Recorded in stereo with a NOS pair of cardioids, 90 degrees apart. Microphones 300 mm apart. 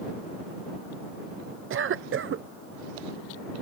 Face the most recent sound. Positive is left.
turn(degrees=-45)